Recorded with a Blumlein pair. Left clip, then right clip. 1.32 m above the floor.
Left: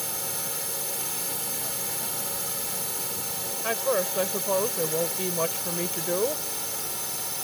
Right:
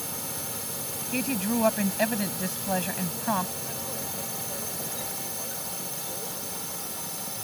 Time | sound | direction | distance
0.0 | a drone | 10° left | ?
1.1 | a woman speaking | 50° right | ?
3.6 | a woman speaking | 40° left | ?